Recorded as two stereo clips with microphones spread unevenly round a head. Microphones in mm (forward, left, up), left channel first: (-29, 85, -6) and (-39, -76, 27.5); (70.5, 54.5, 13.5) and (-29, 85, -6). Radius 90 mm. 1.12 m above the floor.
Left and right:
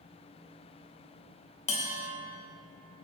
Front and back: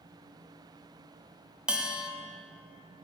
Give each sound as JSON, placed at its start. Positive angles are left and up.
{"t": 1.7, "sound": "a bell", "azimuth_deg": 95, "distance_m": 0.5}